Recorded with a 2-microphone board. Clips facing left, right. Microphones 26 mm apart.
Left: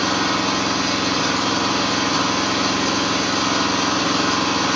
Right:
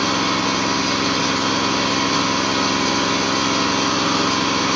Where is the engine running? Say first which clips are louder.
Even; 60° right (ahead or behind), 1.1 m.